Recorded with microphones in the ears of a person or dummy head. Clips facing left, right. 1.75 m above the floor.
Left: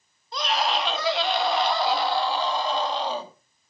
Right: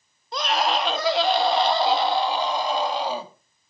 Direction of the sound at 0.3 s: 50° right (ahead or behind).